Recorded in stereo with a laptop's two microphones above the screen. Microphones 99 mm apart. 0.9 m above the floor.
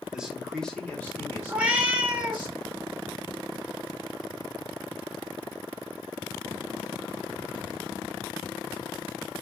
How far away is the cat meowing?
About 0.9 m.